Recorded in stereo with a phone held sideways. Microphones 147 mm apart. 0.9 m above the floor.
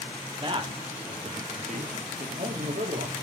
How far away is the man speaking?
About 2.5 m.